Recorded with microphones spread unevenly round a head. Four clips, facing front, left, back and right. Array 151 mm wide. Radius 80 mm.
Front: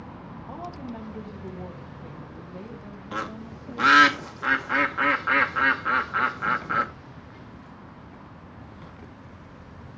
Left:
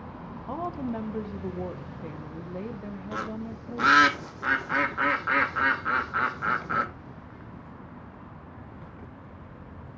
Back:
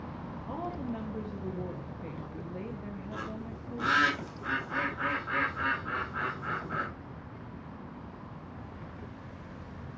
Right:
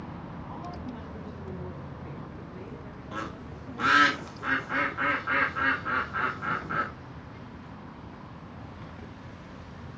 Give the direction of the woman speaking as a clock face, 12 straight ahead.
9 o'clock.